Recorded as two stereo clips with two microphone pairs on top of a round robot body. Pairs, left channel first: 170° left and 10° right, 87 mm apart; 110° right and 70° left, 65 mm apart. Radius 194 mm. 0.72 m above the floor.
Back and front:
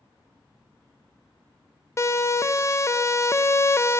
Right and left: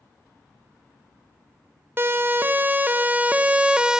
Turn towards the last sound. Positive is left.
turn(degrees=150)